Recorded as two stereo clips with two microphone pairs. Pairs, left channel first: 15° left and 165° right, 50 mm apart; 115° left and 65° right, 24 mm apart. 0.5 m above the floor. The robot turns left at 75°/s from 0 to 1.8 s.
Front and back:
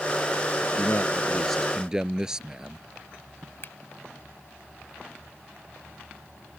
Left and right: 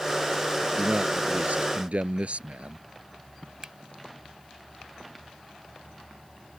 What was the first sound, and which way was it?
A man speaking, 15° right.